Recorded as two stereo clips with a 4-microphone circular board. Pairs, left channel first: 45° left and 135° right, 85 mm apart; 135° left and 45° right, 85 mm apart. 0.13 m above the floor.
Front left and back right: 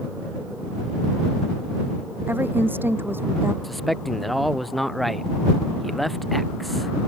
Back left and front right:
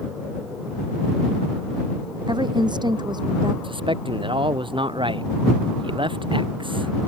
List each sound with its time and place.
2.3 s a woman speaking: 70° right
3.6 s a man speaking: 45° right